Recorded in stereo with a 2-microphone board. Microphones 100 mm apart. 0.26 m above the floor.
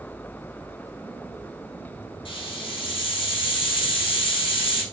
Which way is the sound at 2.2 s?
55° left (ahead or behind).